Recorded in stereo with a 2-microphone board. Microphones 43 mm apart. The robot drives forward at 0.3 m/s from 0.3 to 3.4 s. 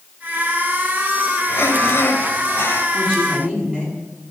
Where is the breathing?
60° left (ahead or behind), 2.5 m; by 2.8 s 50° left (ahead or behind), 2.5 m.